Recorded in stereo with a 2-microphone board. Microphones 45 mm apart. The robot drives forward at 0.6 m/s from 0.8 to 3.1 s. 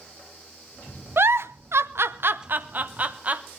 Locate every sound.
1.2 s a giggle: 55° right (ahead or behind), 0.7 m; by 3.4 s 35° right (ahead or behind), 1.1 m